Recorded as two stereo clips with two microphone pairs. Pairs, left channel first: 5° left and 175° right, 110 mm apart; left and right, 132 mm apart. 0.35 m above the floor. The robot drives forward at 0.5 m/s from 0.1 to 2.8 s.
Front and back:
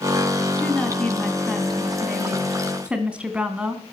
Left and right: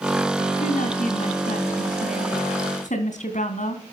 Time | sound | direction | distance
0.6 | a woman speaking | 85° left | 3 m